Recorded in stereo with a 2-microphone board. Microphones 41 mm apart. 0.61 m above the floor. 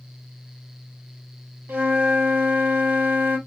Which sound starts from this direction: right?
A flute, at 1.7 s.